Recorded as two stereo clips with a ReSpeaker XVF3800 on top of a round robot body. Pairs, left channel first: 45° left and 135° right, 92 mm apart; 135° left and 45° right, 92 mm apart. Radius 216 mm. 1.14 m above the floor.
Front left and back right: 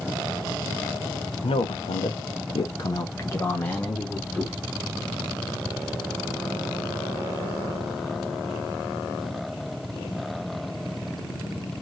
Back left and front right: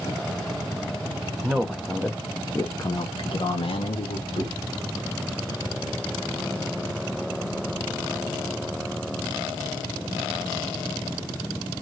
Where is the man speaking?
35° left, 1.1 m; by 4.5 s 130° left, 1.6 m.